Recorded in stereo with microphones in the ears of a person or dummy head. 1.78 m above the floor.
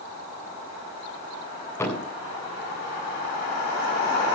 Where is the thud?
15° left (ahead or behind), 8 m.